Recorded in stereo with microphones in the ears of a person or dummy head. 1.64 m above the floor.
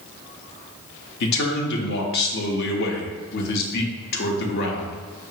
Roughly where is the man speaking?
Left.